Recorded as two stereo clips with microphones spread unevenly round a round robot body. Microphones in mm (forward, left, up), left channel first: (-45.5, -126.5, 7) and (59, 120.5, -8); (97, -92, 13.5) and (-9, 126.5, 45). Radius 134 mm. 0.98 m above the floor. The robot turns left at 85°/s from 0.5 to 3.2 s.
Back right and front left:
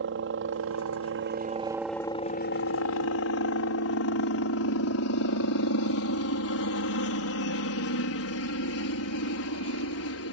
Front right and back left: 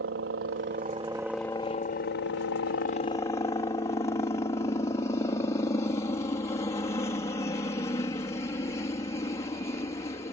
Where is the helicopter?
95° left; by 10.3 s 135° right.